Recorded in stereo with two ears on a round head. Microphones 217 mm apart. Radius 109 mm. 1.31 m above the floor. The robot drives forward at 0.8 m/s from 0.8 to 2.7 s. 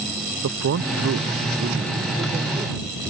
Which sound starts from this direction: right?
A man speaking, at 0.4 s.